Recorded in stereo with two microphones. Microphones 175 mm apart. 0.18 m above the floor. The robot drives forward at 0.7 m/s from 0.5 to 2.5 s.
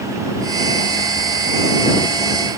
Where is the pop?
No pop in this recording.